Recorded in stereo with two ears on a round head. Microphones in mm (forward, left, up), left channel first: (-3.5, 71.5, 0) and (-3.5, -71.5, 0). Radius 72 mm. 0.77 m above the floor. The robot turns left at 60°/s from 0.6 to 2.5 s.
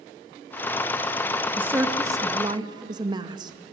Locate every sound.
1.6 s a woman speaking: 10° right (ahead or behind), 0.5 m; by 3.5 s 25° right (ahead or behind), 0.5 m